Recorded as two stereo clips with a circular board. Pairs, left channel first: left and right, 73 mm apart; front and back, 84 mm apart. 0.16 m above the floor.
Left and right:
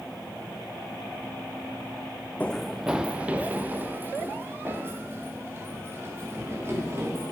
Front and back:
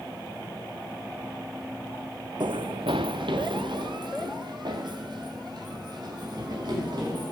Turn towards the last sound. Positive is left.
turn(degrees=-145)